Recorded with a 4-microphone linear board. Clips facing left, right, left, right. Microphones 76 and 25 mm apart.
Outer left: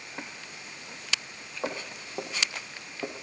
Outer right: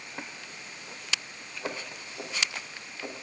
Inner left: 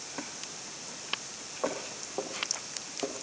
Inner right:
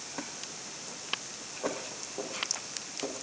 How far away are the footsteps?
About 4.5 m.